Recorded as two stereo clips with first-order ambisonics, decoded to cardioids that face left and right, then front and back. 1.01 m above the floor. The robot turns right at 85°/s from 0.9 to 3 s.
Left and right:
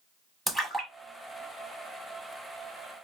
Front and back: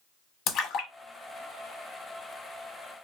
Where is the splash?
5° right, 1.1 m; by 2.3 s 115° left, 1.1 m.